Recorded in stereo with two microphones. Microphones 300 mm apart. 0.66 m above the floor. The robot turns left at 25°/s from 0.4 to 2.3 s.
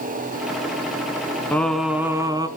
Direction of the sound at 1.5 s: 5° left (ahead or behind).